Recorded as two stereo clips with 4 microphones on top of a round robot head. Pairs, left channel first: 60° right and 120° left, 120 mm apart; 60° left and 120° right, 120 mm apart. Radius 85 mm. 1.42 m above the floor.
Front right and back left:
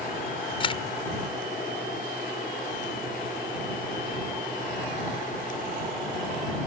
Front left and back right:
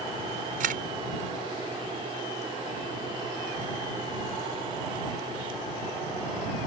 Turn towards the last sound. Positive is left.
turn(degrees=-105)